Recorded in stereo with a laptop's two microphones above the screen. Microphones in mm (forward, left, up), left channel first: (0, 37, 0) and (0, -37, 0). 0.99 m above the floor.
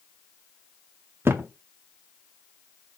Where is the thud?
35° right (ahead or behind), 0.5 m.